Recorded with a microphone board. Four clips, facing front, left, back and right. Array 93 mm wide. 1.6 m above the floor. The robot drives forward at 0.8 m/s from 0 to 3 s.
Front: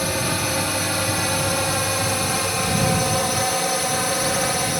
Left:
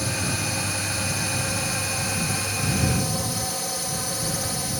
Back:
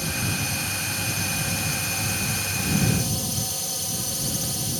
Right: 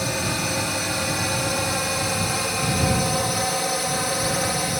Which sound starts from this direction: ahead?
A drone, at 0.0 s.